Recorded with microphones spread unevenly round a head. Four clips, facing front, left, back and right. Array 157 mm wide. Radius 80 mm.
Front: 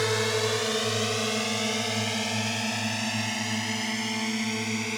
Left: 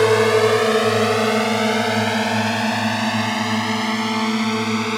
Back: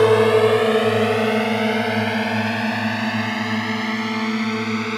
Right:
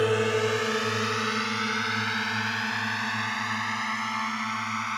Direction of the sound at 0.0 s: 155° left.